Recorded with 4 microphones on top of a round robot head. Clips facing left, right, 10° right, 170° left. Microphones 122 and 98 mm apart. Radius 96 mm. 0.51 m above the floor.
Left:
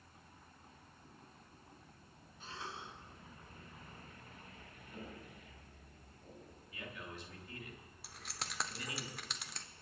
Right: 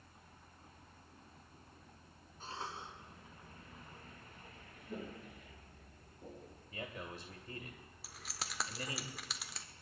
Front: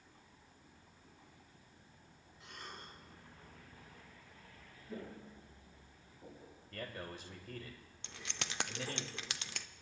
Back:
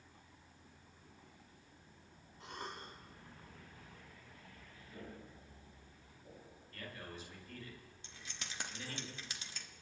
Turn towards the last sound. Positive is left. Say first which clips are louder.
# even, front 6 dB
turn(degrees=0)